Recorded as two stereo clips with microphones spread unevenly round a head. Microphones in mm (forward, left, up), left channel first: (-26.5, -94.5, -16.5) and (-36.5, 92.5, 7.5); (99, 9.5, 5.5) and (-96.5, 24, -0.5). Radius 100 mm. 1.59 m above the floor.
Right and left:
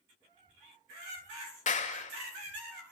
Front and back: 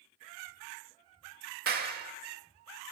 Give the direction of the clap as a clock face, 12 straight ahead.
5 o'clock.